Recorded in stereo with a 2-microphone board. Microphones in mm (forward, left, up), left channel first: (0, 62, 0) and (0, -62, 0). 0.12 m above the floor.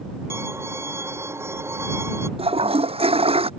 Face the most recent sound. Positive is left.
turn(degrees=-50)  # may be behind; listen again after turning